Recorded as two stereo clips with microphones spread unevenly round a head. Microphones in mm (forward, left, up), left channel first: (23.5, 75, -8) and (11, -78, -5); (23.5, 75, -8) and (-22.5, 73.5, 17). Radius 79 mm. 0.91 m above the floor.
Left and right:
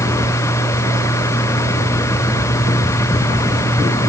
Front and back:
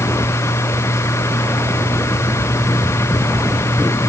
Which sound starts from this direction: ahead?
A machine running, at 0.0 s.